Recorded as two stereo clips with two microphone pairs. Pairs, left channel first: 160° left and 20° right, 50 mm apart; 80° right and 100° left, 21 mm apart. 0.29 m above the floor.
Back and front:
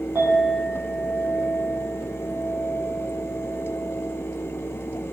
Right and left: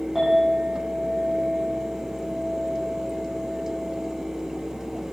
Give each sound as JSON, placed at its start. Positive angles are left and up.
{"t": 0.1, "sound": "a clink", "azimuth_deg": 30, "distance_m": 8.5}